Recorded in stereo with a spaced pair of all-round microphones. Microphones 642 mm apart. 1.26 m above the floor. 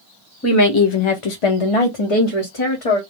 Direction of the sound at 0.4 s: 25° left (ahead or behind).